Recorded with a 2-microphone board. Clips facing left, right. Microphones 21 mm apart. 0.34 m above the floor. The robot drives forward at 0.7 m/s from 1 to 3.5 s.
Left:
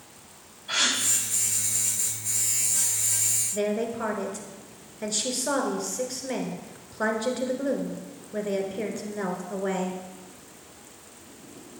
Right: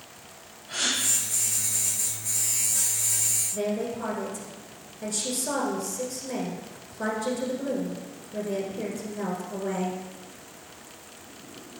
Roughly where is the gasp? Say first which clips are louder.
Left 3 dB; left.